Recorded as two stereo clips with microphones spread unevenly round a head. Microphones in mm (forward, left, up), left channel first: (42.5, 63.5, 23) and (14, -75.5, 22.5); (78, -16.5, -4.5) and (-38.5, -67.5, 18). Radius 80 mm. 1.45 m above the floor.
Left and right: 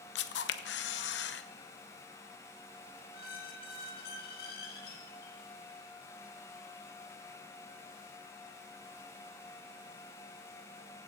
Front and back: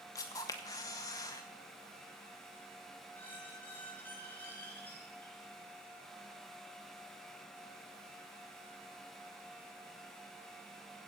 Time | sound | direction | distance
0.1 | a camera shutter | 95° left | 0.8 m
3.1 | a squeak | 105° left | 3.5 m